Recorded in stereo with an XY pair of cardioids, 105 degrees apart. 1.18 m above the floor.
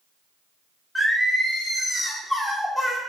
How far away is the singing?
About 0.9 m.